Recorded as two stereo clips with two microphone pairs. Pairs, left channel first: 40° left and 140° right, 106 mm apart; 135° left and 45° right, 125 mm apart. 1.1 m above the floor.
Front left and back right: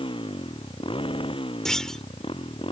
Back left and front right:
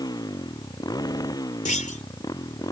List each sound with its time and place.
0.0 s a motorcycle: 75° left
1.6 s a clunk: 125° left